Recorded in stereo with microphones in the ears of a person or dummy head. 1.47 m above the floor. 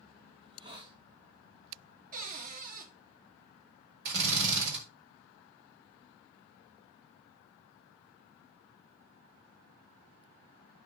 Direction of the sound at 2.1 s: 50° right (ahead or behind).